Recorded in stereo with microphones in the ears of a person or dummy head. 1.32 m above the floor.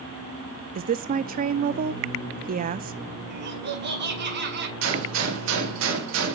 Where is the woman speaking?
40° right (ahead or behind), 0.6 m.